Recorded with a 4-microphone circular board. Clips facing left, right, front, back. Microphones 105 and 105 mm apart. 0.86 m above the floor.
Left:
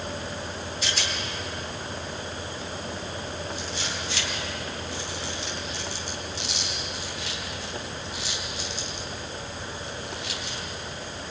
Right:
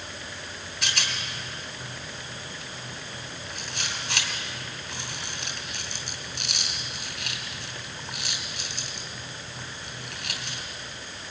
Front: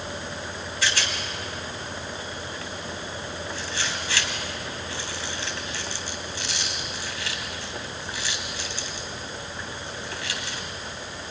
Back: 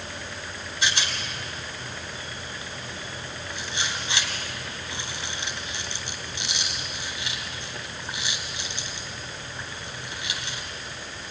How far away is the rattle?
About 3 m.